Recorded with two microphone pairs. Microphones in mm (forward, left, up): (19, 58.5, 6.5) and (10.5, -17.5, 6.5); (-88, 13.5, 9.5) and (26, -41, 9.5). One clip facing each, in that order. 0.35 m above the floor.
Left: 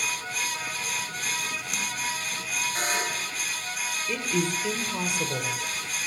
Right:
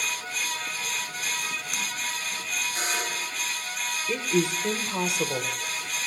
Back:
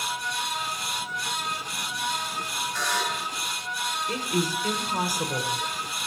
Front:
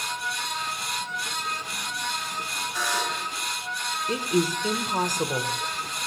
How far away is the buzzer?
About 3 m.